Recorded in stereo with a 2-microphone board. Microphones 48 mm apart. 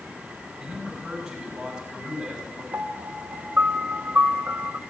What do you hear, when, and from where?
0.6 s a man speaking: 15° right (ahead or behind), 6.5 m
2.7 s a piano: 45° right (ahead or behind), 0.6 m